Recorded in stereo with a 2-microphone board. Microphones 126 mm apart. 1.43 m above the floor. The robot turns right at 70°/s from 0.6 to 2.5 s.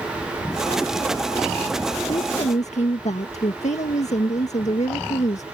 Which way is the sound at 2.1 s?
35° left (ahead or behind).